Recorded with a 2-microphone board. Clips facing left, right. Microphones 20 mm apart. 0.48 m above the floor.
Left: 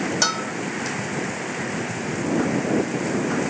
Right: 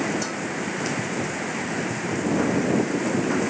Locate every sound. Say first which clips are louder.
0.2 s a bell: left 6 dB; 65° left (ahead or behind)